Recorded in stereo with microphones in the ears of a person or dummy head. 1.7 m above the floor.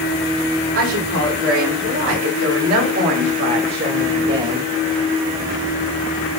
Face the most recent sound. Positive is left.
turn(degrees=-30)  # may be behind; listen again after turning